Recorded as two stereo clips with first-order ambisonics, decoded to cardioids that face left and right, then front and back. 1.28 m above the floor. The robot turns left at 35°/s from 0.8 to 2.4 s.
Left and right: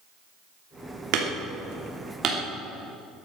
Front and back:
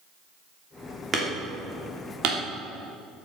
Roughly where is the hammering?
Right.